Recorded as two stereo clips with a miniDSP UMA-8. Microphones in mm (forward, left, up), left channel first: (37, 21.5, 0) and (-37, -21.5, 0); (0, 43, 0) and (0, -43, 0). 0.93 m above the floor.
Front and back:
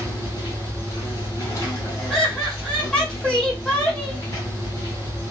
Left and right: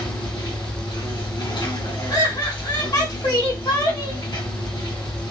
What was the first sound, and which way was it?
An insect, 80° left.